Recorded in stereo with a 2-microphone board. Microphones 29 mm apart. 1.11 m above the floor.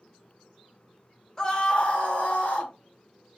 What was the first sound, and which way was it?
A scream, 20° left (ahead or behind).